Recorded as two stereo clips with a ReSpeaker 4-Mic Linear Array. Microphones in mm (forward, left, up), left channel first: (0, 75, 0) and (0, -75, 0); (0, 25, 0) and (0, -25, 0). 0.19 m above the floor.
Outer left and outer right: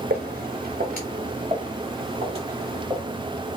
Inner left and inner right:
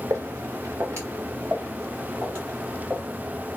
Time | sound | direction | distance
0.1 | footsteps | 80° right | 1.0 m